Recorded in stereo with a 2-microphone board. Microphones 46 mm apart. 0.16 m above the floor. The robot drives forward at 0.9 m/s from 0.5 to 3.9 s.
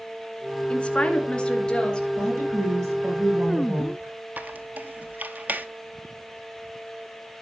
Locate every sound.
0.7 s a woman speaking: 25° left (ahead or behind), 1.5 m; by 2.1 s 15° left (ahead or behind), 2.5 m
2.2 s a woman speaking: 75° right (ahead or behind), 7 m; by 4.1 s 80° right, 7 m
4.4 s a squeak: 40° right (ahead or behind), 0.6 m